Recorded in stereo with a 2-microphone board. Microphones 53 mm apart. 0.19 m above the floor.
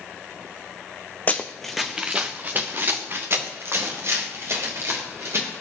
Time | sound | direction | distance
1.3 | running footsteps | 30° left (ahead or behind) | 0.9 m